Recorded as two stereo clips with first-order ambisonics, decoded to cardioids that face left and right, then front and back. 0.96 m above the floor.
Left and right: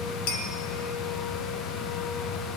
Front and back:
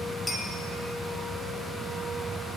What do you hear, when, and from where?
0.3 s a clink: 90° left, 1.5 m